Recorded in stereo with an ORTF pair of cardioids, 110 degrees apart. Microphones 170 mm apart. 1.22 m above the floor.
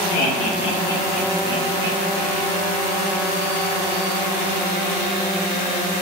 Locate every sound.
0.1 s laughter: 60° left, 1.0 m; by 2.4 s 40° right, 1.4 m